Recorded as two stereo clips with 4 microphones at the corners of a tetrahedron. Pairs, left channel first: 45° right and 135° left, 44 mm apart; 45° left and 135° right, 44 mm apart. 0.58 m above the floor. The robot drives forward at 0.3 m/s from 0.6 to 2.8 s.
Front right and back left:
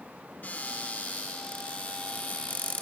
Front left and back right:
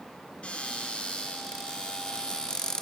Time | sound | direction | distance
0.4 | a cupboard door | 10° right | 1.9 m